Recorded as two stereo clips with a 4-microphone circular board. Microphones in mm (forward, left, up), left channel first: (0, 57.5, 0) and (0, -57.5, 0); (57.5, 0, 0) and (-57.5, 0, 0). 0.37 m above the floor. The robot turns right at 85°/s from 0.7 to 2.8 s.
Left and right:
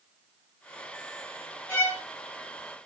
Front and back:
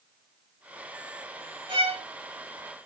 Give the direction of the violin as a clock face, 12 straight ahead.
7 o'clock.